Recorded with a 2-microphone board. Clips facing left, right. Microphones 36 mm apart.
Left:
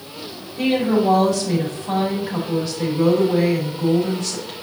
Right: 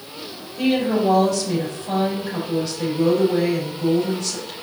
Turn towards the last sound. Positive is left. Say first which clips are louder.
# left 1 dB
turn(degrees=15)  # may be behind; listen again after turning